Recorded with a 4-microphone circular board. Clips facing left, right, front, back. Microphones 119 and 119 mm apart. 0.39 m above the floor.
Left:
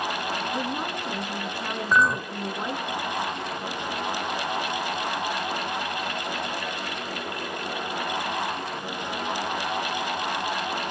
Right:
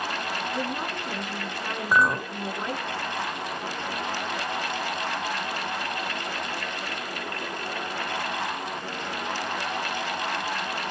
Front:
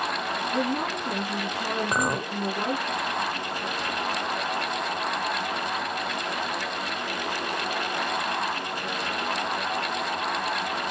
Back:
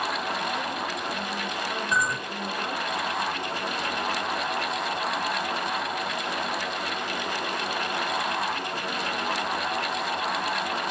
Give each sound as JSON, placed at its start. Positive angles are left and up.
{"t": 0.5, "sound": "a woman speaking", "azimuth_deg": 20, "distance_m": 4.0}
{"t": 1.9, "sound": "a clink", "azimuth_deg": -15, "distance_m": 1.0}